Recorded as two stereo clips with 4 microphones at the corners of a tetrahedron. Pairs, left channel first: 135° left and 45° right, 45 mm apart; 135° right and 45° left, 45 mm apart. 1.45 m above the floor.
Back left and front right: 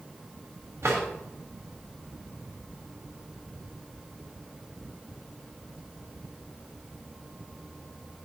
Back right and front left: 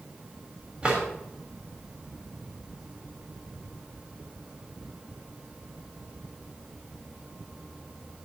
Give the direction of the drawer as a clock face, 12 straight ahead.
1 o'clock.